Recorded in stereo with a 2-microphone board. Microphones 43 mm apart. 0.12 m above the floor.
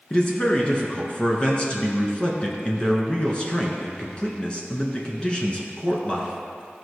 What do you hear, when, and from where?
0.1 s a man speaking: 25° left (ahead or behind), 1.2 m